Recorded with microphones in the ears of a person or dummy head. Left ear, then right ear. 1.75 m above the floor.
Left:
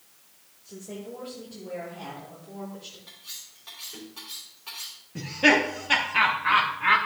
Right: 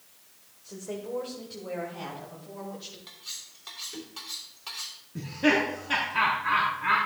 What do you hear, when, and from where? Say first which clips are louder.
0.6 s a woman speaking: right 3 dB; 30° right (ahead or behind), 1.3 m; by 3.0 s 80° right, 3 m
3.1 s cutlery clinking: right 1 dB; 30° right (ahead or behind), 3 m
5.2 s laughter: left 4 dB; 10° left (ahead or behind), 0.7 m